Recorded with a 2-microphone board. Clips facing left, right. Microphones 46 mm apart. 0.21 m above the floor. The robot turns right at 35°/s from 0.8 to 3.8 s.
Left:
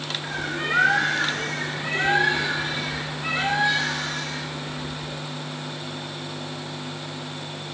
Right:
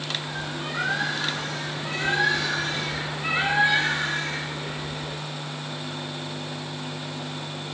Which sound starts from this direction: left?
A bird, at 0.2 s.